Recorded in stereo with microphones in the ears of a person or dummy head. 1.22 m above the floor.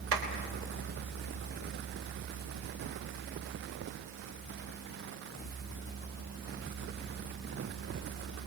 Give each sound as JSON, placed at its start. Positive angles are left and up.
{"t": 0.1, "sound": "a clap", "side_deg": -75, "distance_m": 3.0}